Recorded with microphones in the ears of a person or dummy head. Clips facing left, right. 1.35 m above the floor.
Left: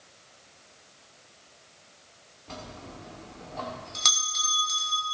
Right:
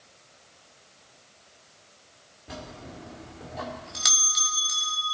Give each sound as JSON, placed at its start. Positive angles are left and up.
{"t": 2.5, "sound": "a bell", "side_deg": -5, "distance_m": 2.0}